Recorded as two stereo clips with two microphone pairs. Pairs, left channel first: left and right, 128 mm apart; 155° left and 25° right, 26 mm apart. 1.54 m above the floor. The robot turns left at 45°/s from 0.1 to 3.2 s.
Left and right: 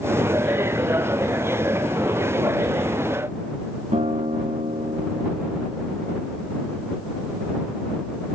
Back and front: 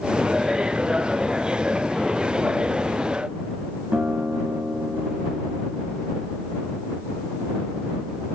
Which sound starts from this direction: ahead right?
A guitar, at 3.9 s.